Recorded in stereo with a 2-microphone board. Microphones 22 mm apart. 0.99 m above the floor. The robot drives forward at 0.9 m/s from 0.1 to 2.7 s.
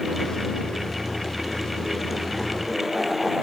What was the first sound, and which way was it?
Only background noise.